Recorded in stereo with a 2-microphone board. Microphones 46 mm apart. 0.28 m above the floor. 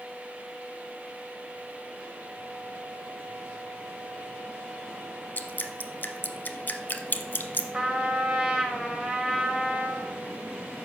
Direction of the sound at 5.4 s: 40° left (ahead or behind).